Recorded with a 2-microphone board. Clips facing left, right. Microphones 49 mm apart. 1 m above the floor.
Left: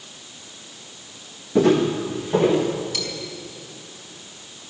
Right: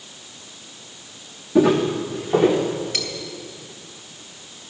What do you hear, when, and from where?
1.6 s footsteps: 5° right (ahead or behind), 2.5 m; by 2.6 s 20° right (ahead or behind), 4 m
2.9 s cutlery clinking: 40° right (ahead or behind), 3 m